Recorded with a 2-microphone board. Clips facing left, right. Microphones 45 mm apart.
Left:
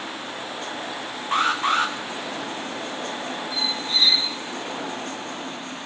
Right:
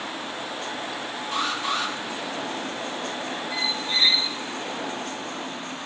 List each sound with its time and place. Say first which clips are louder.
1.3 s an alarm: left 6 dB; 50° left (ahead or behind), 1.7 m
3.5 s a squeak: even; 40° right (ahead or behind), 3 m